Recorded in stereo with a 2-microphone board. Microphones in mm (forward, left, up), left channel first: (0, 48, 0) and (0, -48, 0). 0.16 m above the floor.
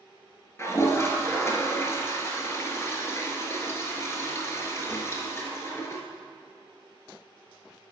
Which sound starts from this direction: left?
A toilet flushing, at 0.6 s.